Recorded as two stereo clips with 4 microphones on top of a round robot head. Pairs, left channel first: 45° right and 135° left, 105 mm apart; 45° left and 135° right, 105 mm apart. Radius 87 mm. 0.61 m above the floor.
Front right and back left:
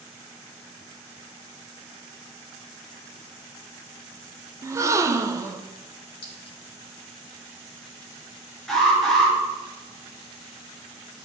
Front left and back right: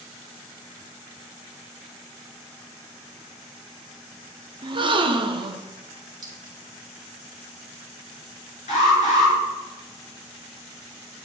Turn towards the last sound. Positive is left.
turn(degrees=40)